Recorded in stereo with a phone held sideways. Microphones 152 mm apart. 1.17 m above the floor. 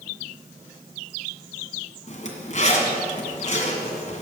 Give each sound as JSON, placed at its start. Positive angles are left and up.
{"t": 2.1, "sound": "a zipper", "side_deg": 50, "distance_m": 1.7}